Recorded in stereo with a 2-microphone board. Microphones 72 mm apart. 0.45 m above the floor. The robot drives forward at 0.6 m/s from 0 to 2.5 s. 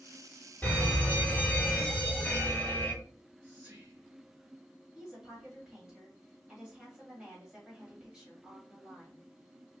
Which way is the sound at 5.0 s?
10° right (ahead or behind).